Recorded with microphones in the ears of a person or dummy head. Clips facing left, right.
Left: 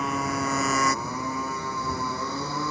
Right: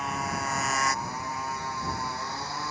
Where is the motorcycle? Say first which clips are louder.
Left 5 dB; 75° left (ahead or behind); by 2.7 s 85° left.